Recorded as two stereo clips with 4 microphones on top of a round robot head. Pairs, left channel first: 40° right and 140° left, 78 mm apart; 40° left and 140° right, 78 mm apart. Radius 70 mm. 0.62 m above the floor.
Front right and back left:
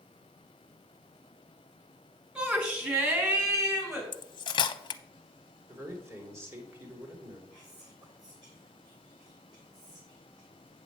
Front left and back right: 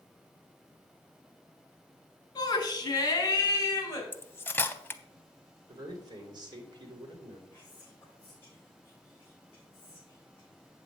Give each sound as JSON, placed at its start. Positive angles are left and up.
{"t": 2.4, "sound": "a shout", "azimuth_deg": 65, "distance_m": 2.0}
{"t": 4.1, "sound": "cutlery clinking", "azimuth_deg": -25, "distance_m": 0.7}
{"t": 5.7, "sound": "a man speaking", "azimuth_deg": -165, "distance_m": 2.5}
{"t": 7.5, "sound": "whispering", "azimuth_deg": 105, "distance_m": 4.0}